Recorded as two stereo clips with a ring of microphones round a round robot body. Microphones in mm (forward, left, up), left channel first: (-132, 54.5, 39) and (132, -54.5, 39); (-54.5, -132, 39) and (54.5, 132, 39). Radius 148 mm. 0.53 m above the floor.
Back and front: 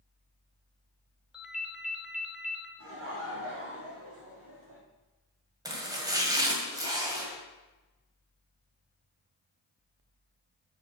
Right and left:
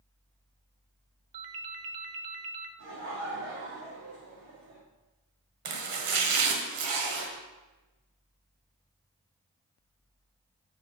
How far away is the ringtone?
About 0.9 m.